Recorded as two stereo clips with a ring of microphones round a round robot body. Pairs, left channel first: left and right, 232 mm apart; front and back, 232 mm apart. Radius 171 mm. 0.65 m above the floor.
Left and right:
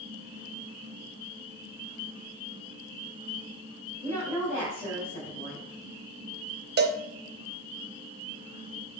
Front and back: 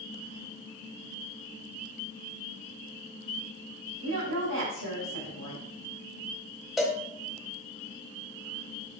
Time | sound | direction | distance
4.0 | a woman speaking | 160° right | 3.5 m
6.8 | a cowbell | 90° right | 0.6 m